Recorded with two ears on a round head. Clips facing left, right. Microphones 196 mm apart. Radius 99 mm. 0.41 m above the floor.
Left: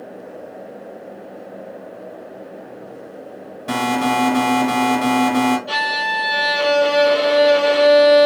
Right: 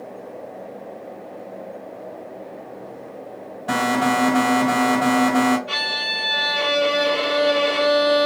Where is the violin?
25° left (ahead or behind), 1.6 m.